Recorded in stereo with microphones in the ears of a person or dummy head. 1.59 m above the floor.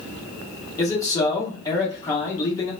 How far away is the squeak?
No squeak in this recording.